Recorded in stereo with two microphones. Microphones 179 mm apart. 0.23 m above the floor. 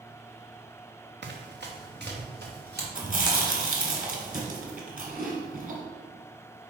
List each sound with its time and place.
1.2 s running footsteps: 75° right (ahead or behind), 1.3 m; by 2.9 s 65° right (ahead or behind), 3.5 m
3.0 s chewing: 55° right (ahead or behind), 1.8 m